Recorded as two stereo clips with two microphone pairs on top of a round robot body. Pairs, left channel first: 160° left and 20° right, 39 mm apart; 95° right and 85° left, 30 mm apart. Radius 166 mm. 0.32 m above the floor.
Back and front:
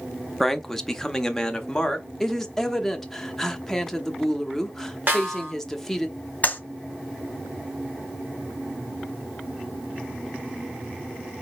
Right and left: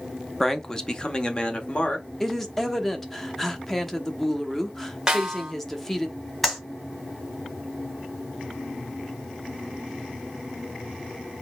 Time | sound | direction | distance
0.4 | a man speaking | 170° right | 0.9 m
2.2 | a woman speaking | 170° right | 1.1 m
5.1 | a snare drum | 20° left | 1.9 m
6.4 | a clap | straight behind | 1.8 m